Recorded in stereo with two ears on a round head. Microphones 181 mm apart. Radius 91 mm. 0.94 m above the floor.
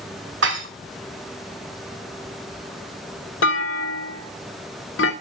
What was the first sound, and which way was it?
Dishes clattering, 70° right (ahead or behind).